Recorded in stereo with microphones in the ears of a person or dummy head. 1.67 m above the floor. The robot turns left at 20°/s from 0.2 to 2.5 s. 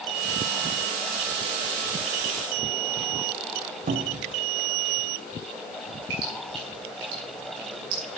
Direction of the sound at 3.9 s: 40° right (ahead or behind).